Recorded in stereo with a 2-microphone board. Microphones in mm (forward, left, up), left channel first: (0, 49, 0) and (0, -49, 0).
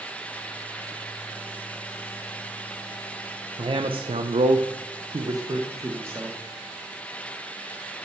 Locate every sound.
3.6 s a man speaking: 55° right (ahead or behind), 0.8 m; by 6.4 s 20° right (ahead or behind), 1.4 m